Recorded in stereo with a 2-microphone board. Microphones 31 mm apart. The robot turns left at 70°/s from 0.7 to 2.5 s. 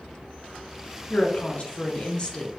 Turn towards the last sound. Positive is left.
turn(degrees=25)